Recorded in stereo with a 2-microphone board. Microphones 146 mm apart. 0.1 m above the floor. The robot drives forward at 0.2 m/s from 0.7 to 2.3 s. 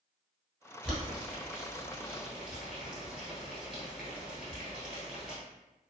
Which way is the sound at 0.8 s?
5° right (ahead or behind).